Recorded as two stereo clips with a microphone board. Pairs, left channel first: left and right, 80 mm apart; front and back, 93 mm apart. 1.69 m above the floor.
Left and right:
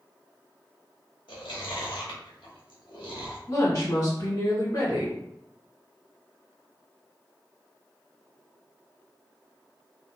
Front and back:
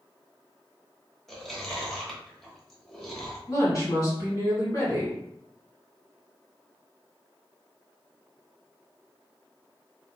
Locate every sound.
1.3 s chewing: 85° left, 0.8 m
3.5 s a woman speaking: 50° left, 1.9 m